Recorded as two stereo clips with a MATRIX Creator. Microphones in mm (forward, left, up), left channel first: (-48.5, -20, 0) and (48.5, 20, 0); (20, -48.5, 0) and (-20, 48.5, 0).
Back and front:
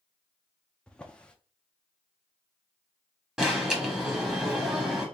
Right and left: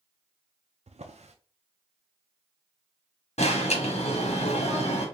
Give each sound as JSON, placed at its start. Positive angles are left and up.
{"t": 0.9, "sound": "a drawer", "azimuth_deg": 120, "distance_m": 0.6}
{"t": 3.4, "sound": "an alarm", "azimuth_deg": -60, "distance_m": 1.2}